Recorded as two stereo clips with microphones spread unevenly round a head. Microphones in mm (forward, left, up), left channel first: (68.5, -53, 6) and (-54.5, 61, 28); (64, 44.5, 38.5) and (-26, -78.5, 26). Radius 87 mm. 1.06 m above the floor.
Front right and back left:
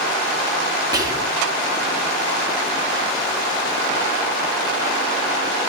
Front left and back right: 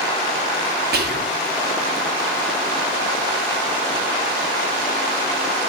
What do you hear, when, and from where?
0.9 s whispering: 155° right, 1.8 m